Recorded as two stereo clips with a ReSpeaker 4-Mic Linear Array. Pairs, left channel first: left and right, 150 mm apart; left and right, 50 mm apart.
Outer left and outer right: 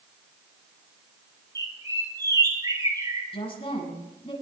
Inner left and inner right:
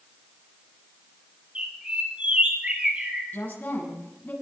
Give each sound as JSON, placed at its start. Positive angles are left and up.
{"t": 1.6, "sound": "a bird", "side_deg": -25, "distance_m": 5.0}
{"t": 3.3, "sound": "a woman speaking", "side_deg": 40, "distance_m": 6.5}